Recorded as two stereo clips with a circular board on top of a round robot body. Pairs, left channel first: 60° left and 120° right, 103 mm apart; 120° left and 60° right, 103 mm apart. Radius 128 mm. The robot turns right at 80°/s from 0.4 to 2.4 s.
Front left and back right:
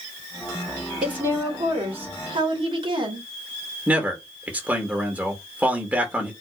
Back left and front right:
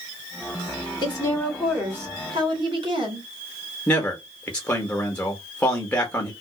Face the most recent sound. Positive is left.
turn(degrees=180)